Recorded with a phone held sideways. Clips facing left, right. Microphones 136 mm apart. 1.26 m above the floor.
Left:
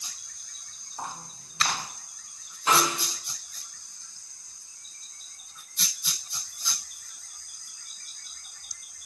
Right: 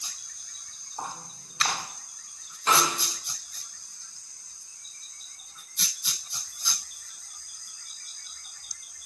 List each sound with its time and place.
1.0 s footsteps: 25° right (ahead or behind), 1.3 m
2.7 s a snare drum: 5° left (ahead or behind), 0.8 m